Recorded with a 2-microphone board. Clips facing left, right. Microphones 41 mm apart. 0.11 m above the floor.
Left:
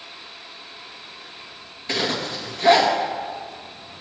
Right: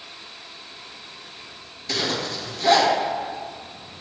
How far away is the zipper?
About 2.5 m.